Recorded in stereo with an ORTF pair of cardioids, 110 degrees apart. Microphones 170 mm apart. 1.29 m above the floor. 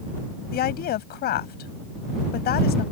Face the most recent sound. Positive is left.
turn(degrees=70)